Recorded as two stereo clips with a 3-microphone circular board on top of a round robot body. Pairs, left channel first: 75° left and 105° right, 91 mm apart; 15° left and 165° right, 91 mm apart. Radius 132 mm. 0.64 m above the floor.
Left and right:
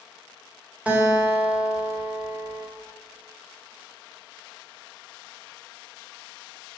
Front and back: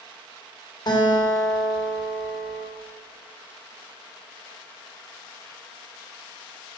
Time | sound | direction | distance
0.9 | a guitar | 30° right | 3 m